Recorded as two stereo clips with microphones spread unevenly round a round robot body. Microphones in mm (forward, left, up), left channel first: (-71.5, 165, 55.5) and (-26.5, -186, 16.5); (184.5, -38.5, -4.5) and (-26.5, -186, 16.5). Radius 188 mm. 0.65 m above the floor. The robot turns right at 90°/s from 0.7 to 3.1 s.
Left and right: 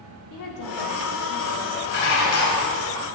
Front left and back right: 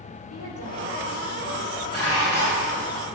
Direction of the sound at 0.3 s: 55° left.